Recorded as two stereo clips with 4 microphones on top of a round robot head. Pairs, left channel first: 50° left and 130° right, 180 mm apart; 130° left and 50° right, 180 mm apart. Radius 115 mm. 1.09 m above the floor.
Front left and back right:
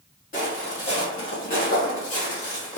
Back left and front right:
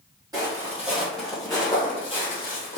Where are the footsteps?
10° left, 1.4 m; by 2.8 s 100° left, 1.5 m.